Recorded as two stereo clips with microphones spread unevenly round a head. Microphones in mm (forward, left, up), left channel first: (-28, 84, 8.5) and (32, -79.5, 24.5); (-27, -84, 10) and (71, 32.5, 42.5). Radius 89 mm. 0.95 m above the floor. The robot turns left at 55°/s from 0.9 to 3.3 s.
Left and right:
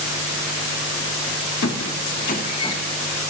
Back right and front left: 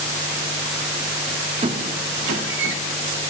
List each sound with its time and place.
1.6 s a squeak: 110° left, 2.5 m; by 2.8 s 45° left, 2.5 m